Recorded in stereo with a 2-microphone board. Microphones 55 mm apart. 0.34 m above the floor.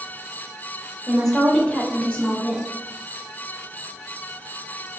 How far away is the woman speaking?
About 1.1 m.